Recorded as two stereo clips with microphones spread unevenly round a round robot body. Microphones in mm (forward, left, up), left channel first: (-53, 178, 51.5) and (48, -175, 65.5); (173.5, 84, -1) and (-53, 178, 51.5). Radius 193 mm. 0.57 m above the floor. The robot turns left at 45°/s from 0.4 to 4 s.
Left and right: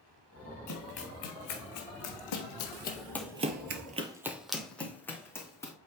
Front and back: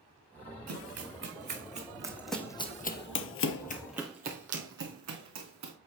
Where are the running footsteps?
150° left, 3.5 m; by 5.7 s 170° right, 2.5 m.